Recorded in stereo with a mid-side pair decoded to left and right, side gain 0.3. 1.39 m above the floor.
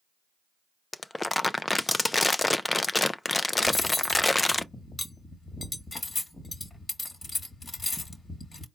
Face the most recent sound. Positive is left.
turn(degrees=40)